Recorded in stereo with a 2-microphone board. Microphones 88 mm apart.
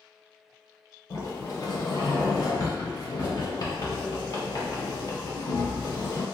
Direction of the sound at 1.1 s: 50° left (ahead or behind).